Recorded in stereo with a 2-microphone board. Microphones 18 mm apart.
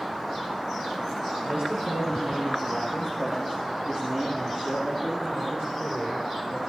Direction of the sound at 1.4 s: 70° right (ahead or behind).